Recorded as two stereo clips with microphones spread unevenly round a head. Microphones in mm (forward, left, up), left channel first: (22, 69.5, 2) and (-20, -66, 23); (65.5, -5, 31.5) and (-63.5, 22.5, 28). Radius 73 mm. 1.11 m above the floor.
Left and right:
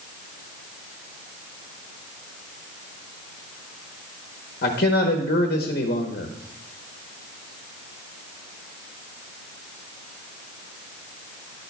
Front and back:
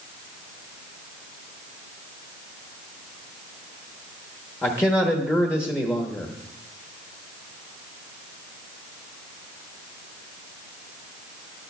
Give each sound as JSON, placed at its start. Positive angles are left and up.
{"t": 4.6, "sound": "a man speaking", "azimuth_deg": 60, "distance_m": 1.0}